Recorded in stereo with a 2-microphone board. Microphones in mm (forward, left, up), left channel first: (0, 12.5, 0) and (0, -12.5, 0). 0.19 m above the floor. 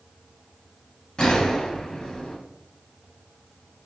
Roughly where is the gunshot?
Left.